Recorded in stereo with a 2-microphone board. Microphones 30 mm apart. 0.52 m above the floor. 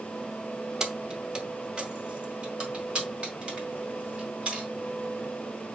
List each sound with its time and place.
0.8 s keys jangling: 25° right (ahead or behind), 0.6 m; by 4.7 s 40° right (ahead or behind), 2.5 m